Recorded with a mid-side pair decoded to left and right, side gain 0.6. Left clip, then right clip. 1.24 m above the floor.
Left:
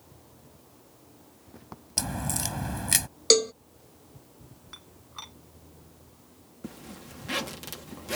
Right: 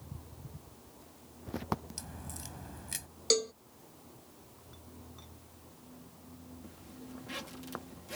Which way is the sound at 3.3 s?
40° left.